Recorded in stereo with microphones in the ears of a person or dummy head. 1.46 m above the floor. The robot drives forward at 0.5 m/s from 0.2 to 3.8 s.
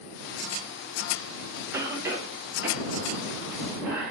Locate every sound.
1.7 s a cough: 10° right (ahead or behind), 1.6 m; by 4.1 s 5° right (ahead or behind), 2.5 m